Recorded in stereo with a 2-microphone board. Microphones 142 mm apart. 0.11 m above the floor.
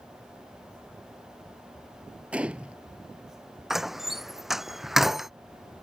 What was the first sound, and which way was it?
A gunshot, 10° right (ahead or behind).